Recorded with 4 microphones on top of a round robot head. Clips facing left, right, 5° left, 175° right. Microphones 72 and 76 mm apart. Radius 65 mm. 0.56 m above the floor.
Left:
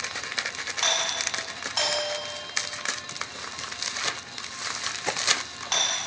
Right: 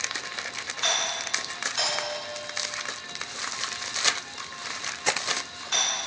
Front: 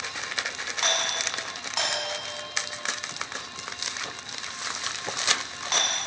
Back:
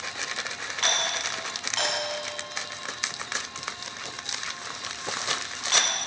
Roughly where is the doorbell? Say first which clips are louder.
Left 1 dB, even; left.